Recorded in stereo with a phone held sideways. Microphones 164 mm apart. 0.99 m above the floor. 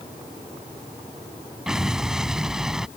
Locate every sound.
1.7 s an explosion: 5° right (ahead or behind)